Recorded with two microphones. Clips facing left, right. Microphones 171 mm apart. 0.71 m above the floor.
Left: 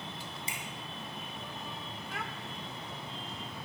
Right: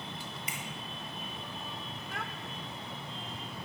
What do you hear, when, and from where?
0.5 s a finger snap: 30° left (ahead or behind), 4 m
2.1 s a child speaking: centre (ahead or behind), 1.8 m